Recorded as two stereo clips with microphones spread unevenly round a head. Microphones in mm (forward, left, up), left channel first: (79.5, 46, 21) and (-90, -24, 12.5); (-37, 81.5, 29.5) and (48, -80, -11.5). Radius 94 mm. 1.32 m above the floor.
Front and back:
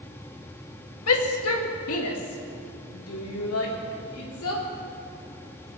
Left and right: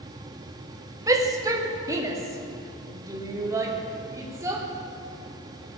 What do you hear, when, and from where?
1.1 s a shout: 10° left, 1.9 m; by 4.6 s 15° left, 4 m